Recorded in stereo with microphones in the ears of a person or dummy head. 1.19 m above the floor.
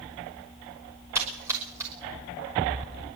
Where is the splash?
15° right (ahead or behind), 5.5 m.